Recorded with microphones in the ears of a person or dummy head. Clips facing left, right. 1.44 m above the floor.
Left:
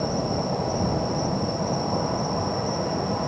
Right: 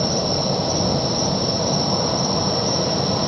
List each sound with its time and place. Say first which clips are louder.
0.0 s an insect: right 4 dB; 55° right (ahead or behind)